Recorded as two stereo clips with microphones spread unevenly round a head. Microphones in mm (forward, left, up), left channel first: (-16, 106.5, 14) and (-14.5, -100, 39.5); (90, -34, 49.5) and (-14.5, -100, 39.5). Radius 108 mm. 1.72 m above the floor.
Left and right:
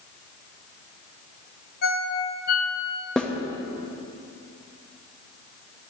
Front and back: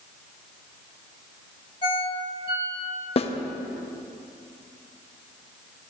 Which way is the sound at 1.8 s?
55° left.